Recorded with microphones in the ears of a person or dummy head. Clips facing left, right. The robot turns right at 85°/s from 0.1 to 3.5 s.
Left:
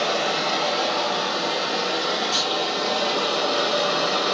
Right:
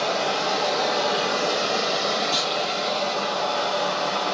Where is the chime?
I don't hear a chime.